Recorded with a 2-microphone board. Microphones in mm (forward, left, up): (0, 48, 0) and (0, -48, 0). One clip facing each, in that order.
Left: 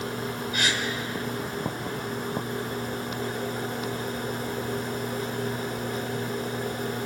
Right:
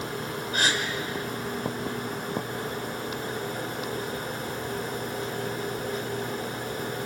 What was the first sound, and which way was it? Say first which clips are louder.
A gasp: right 3 dB; 40° right (ahead or behind).